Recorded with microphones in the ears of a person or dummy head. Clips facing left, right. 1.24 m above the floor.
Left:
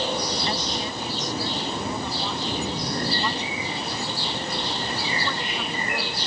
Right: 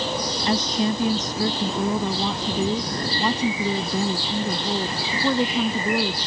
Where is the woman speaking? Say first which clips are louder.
Right 7 dB; 60° right (ahead or behind); by 6.2 s 35° right (ahead or behind).